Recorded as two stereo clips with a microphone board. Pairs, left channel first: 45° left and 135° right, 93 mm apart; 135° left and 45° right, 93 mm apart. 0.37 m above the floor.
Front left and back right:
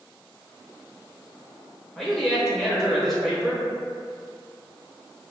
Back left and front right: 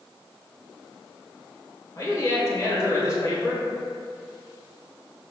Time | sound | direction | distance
1.9 | a man speaking | 130° left | 1.1 m